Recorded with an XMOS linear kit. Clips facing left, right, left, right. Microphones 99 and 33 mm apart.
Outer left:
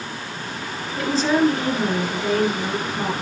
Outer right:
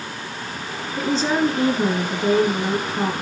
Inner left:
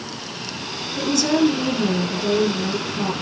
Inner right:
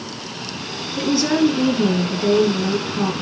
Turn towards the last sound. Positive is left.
turn(degrees=-30)  # may be behind; listen again after turning